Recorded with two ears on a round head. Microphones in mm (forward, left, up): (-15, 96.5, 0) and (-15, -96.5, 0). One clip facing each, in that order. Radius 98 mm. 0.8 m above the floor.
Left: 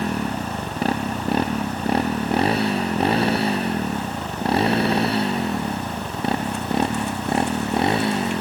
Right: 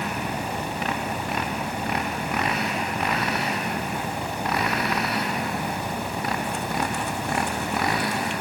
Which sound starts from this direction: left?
A motorcycle, at 0.0 s.